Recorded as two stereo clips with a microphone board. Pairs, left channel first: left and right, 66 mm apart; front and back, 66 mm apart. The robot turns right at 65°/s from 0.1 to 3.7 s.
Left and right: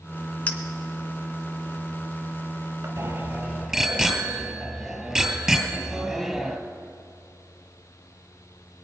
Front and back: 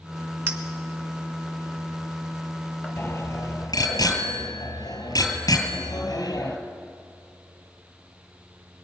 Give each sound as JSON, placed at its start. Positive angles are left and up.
{"t": 0.5, "sound": "a clink", "azimuth_deg": 140, "distance_m": 1.1}
{"t": 3.0, "sound": "a bicycle bell", "azimuth_deg": -50, "distance_m": 2.5}